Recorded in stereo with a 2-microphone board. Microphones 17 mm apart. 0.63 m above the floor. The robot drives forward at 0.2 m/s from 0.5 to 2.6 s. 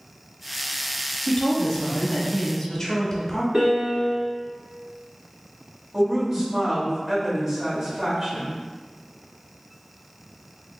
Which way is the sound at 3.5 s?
45° right (ahead or behind).